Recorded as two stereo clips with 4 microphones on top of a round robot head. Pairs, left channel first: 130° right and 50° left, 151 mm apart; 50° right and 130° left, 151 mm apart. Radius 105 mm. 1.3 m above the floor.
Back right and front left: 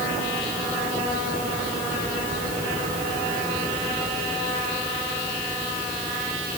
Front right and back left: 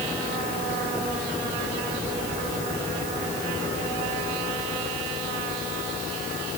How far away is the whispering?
I don't hear whispering.